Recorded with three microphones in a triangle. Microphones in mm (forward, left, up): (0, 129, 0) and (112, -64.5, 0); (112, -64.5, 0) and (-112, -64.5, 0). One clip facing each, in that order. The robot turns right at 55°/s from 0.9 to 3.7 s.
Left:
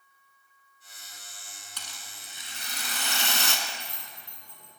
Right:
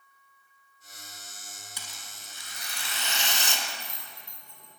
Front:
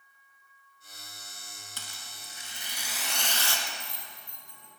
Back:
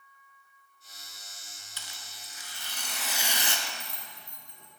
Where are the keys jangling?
155° right, 3 m.